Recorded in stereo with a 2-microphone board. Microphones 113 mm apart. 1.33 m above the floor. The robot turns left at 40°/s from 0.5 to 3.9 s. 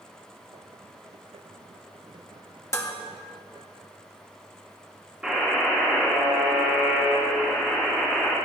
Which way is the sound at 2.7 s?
25° left (ahead or behind).